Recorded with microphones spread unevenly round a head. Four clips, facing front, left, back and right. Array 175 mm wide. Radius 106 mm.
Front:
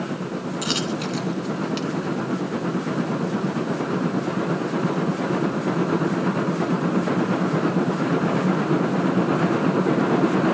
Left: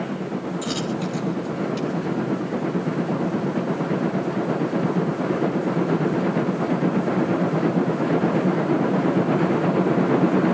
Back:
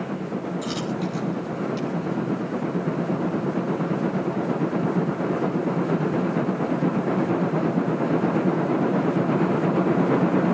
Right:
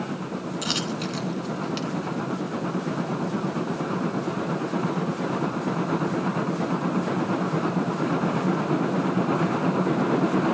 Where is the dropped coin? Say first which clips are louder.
Left 3 dB, front 1 dB; 15° right, 3.5 m.